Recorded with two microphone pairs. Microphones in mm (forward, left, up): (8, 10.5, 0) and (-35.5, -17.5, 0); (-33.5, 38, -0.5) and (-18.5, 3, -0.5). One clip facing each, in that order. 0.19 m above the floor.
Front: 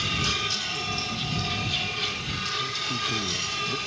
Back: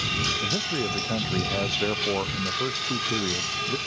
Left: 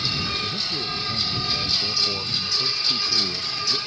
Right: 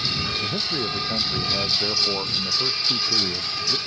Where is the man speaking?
115° right; by 3.8 s 130° right.